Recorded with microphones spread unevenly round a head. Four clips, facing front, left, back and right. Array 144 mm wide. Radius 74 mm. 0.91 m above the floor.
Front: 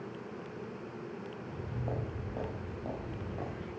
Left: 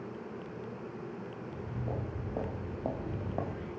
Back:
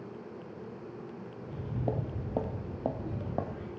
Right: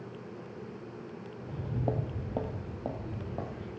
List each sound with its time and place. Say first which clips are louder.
1.4 s footsteps: right 8 dB, back 7 dB; 125° right, 1.6 m; by 3.7 s 160° left, 2.5 m